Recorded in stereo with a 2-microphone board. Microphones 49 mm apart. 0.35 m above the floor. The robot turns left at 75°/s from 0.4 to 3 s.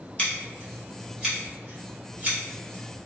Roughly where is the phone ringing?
No phone ringing in this recording.